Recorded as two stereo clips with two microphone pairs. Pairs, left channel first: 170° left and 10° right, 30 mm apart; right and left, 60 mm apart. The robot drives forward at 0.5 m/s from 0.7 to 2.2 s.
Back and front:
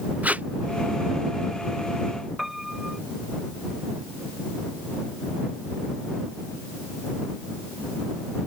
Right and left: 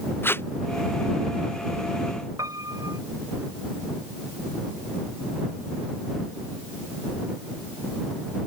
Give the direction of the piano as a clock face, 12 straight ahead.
10 o'clock.